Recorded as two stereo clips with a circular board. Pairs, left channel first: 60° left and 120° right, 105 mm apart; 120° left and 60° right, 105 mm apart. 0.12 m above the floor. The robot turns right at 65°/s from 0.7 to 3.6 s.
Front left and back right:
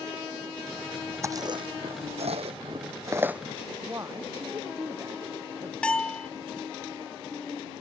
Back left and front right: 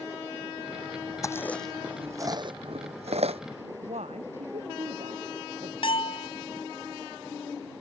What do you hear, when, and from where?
1.2 s chewing: straight behind; by 3.4 s 40° right
3.8 s a woman speaking: 60° right
5.8 s a bell: 140° left